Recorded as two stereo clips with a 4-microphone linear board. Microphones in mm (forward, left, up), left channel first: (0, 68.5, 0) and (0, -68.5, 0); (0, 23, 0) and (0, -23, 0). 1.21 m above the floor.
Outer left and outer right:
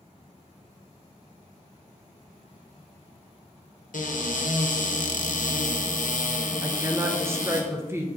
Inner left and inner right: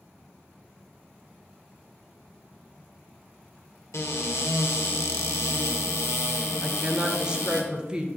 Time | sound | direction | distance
3.9 | a cupboard door | 70° left (ahead or behind) | 0.7 m
6.6 | a woman speaking | 20° right (ahead or behind) | 0.6 m